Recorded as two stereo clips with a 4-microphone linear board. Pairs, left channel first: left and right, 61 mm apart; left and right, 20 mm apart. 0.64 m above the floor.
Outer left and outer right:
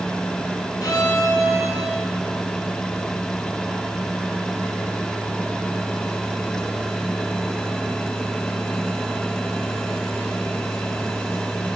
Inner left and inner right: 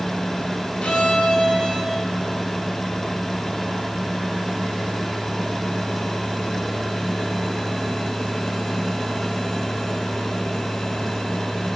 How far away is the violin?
About 7.5 m.